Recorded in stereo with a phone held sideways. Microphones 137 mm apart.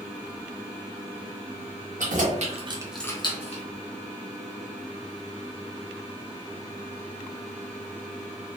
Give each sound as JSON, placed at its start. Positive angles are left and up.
{"t": 2.0, "sound": "keys jangling", "side_deg": -75, "distance_m": 1.3}